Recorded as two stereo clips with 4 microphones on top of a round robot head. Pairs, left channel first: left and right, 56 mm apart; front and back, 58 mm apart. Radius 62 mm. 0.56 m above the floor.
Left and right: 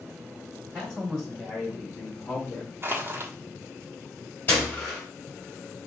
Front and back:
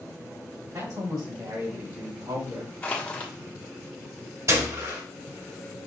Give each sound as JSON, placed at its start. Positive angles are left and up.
{"t": 0.7, "sound": "a man speaking", "azimuth_deg": 175, "distance_m": 3.0}
{"t": 2.8, "sound": "crushing", "azimuth_deg": -60, "distance_m": 1.2}
{"t": 4.5, "sound": "a gunshot", "azimuth_deg": 150, "distance_m": 2.0}